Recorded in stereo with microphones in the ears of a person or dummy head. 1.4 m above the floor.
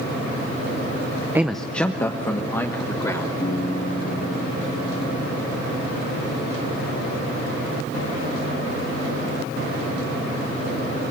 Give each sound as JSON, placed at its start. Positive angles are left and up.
{"t": 1.4, "sound": "a man speaking", "side_deg": -15, "distance_m": 0.6}
{"t": 3.4, "sound": "a piano", "side_deg": 30, "distance_m": 9.5}